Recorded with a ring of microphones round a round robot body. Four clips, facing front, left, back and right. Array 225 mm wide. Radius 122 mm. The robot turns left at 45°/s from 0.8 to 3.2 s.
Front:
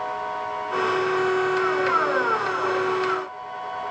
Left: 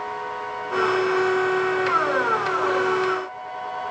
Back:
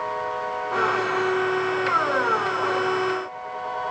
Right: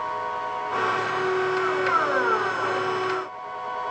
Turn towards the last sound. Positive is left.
No sound to turn to.